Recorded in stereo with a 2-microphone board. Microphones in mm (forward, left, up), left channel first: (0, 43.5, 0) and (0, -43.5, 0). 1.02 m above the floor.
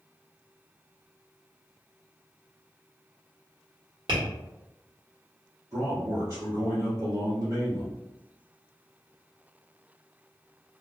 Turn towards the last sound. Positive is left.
turn(degrees=-35)  # may be behind; listen again after turning